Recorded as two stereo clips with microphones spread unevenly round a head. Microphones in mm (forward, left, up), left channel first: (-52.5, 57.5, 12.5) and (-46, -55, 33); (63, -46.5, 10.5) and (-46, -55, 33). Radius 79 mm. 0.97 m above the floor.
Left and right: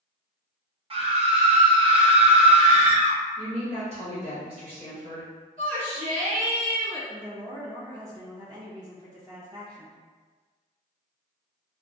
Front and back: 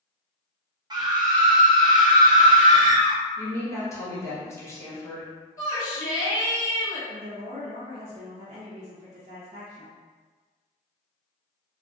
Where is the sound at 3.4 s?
50° right, 1.1 m.